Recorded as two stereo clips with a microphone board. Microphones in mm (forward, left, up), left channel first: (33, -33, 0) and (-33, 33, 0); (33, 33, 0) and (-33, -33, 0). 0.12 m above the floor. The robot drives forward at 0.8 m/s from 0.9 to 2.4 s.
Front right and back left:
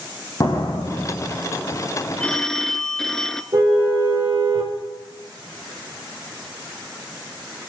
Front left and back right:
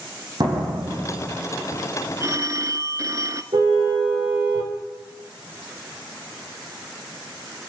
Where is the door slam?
100° right, 5 m; by 1.4 s 105° right, 5 m.